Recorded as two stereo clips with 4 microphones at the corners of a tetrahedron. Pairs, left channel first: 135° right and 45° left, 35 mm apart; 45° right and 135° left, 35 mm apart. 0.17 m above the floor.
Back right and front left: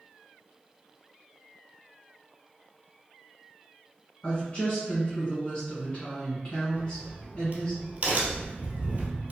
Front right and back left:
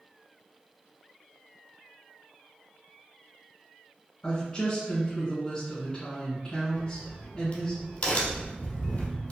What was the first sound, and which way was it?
A woman speaking, 95° right.